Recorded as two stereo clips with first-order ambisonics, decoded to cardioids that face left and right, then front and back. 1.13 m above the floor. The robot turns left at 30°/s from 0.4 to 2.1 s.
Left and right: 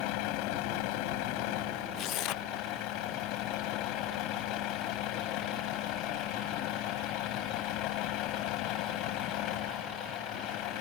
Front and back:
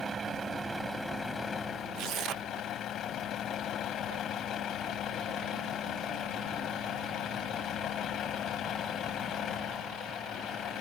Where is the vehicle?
110° left; by 10.8 s 60° left.